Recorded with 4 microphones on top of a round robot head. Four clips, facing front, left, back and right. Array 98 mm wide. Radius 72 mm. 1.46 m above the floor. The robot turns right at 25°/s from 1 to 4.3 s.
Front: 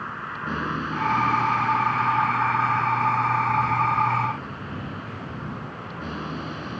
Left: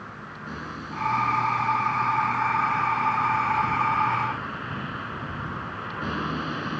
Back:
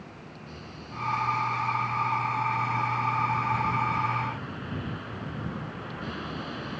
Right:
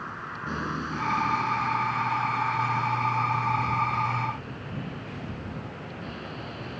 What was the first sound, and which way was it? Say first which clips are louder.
A vehicle: right 3 dB, front 13 dB; 15° right.